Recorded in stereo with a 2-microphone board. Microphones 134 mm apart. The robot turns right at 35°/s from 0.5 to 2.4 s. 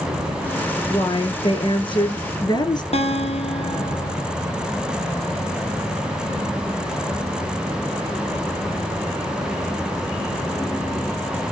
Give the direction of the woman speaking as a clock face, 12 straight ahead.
10 o'clock.